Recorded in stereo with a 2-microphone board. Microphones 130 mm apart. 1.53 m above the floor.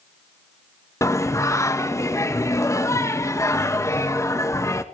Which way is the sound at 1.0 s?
25° left (ahead or behind).